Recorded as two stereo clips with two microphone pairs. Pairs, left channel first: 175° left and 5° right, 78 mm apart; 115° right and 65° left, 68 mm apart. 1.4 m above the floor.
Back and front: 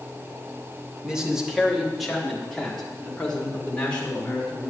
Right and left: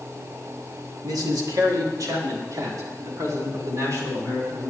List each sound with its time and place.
1.0 s a man speaking: 75° left, 2.5 m; by 4.7 s 105° left, 5.5 m